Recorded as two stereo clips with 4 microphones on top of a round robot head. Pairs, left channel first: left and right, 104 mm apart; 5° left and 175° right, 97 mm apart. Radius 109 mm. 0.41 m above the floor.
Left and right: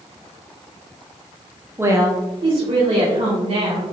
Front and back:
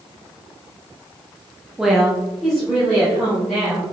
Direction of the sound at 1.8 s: 100° right.